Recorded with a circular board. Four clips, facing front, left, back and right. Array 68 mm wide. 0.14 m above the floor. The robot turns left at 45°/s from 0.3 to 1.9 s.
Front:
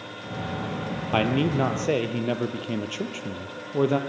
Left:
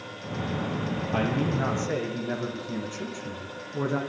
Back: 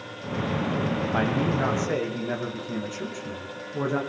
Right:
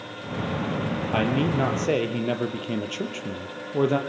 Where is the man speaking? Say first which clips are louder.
Right 3 dB, front 5 dB; 20° right, 4.5 m; by 4.0 s 55° right, 4.5 m.